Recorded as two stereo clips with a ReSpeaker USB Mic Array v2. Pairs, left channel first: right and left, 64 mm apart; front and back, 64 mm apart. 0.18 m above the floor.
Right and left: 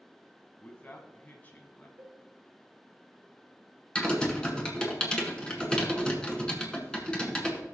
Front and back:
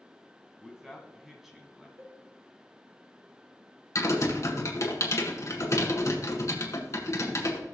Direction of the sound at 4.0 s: 20° right.